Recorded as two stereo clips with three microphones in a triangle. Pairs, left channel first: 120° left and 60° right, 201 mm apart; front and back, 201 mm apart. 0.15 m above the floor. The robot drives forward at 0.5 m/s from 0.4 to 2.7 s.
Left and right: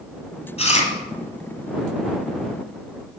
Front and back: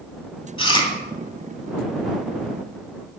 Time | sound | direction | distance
0.6 | chewing | 65° left | 1.3 m